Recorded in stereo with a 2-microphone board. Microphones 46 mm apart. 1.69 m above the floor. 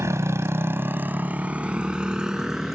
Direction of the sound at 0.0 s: 80° right.